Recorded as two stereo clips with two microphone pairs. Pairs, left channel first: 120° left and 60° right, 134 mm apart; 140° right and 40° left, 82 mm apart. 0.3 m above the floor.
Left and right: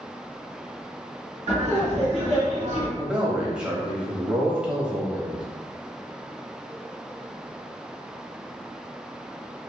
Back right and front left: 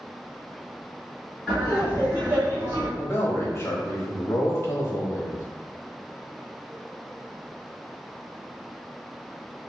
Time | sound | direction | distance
1.5 | laughter | 35° right | 1.9 m
3.0 | a man speaking | 130° right | 1.0 m